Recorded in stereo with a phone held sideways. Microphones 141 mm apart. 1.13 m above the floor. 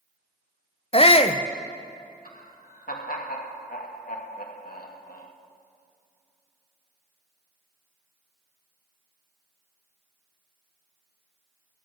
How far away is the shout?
About 0.6 m.